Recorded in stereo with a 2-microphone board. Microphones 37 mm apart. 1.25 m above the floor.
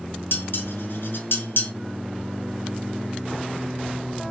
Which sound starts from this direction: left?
Dishes clattering, at 0.3 s.